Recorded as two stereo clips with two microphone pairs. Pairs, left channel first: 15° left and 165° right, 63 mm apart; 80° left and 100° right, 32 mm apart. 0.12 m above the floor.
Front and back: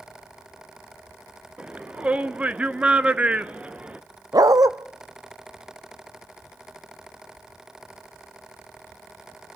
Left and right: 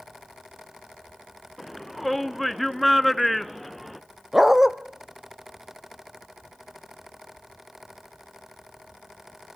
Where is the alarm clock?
No alarm clock in this recording.